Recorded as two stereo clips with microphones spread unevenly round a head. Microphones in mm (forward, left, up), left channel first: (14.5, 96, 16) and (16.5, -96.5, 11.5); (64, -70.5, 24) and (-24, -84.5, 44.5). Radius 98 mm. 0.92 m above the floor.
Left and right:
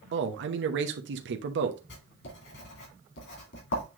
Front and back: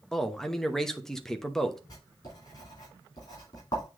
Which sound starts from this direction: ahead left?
Writing, at 1.9 s.